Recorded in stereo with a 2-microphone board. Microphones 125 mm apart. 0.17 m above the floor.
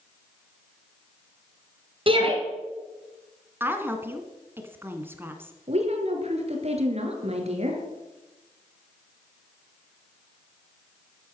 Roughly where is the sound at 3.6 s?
Centre.